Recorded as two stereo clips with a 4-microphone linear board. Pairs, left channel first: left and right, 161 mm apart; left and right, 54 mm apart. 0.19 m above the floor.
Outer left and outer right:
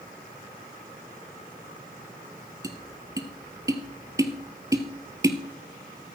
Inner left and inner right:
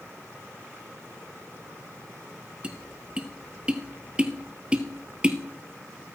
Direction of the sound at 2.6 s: 20° right (ahead or behind).